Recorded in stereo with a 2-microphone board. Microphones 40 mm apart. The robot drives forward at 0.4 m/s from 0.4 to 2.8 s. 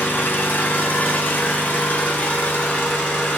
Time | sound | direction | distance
0.0 | an engine running | 45° left (ahead or behind) | 1.6 m